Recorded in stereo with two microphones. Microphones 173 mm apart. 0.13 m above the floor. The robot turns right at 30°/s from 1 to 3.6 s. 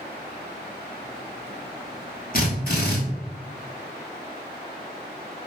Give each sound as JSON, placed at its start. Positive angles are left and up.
{"t": 2.3, "sound": "a drill", "side_deg": 55, "distance_m": 1.1}